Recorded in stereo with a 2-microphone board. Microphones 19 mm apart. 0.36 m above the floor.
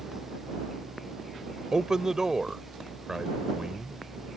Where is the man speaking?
35° right (ahead or behind).